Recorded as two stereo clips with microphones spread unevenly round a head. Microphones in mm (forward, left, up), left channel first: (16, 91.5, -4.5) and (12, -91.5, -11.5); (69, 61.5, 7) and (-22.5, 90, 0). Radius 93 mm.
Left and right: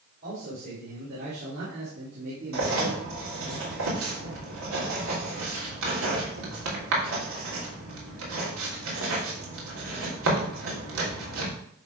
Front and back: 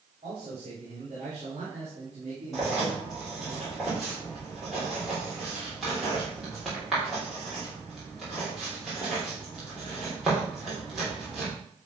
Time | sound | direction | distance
0.2 | a man speaking | 135° right | 4 m
2.5 | writing | 105° right | 3 m